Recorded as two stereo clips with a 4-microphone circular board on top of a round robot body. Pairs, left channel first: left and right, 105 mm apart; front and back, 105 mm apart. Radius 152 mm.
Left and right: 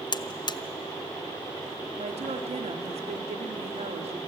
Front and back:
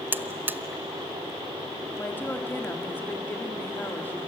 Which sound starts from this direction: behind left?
A buzzer, at 0.1 s.